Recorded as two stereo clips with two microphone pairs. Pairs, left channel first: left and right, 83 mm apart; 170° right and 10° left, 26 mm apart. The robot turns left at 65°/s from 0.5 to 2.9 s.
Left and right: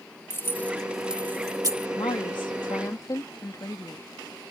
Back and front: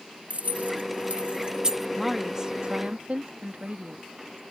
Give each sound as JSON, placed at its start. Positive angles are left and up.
{"t": 0.3, "sound": "keys jangling", "azimuth_deg": 25}
{"t": 2.0, "sound": "a woman speaking", "azimuth_deg": 105}